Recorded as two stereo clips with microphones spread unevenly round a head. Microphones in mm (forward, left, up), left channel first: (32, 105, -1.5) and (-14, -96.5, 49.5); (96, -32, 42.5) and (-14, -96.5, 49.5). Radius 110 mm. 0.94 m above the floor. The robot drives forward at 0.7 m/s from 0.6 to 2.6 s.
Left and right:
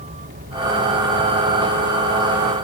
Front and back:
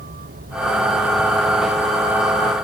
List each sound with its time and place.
0.0 s a vehicle: 160° right; by 2.7 s 120° right